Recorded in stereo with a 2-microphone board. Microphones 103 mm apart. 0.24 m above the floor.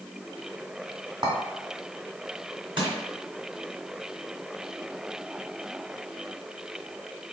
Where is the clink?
50° right (ahead or behind), 1.4 m.